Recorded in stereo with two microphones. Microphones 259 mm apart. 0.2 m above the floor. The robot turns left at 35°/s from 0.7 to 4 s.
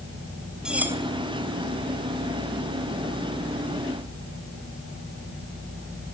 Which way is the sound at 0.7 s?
5° right (ahead or behind).